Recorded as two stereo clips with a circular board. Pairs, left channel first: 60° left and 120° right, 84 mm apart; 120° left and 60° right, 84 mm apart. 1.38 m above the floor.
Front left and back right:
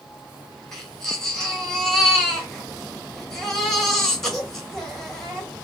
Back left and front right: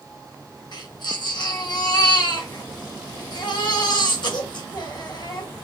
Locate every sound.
0.7 s a baby crying: 145° left, 2.5 m